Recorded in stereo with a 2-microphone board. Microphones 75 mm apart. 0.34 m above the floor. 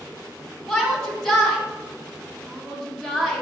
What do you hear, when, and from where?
0.7 s a shout: 10° left (ahead or behind), 2.0 m